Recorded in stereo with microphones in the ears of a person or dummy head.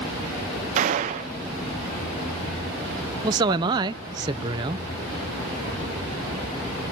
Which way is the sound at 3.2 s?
20° right (ahead or behind).